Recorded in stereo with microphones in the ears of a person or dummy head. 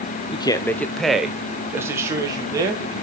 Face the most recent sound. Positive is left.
turn(degrees=-20)  # may be behind; listen again after turning